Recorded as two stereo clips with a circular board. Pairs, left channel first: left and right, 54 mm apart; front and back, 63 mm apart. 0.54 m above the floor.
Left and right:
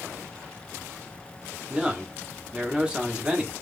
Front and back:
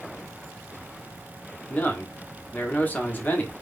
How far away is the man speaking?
About 0.9 m.